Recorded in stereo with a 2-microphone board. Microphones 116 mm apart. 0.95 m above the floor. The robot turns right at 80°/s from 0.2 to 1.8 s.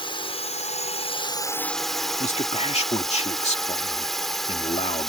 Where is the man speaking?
70° left (ahead or behind).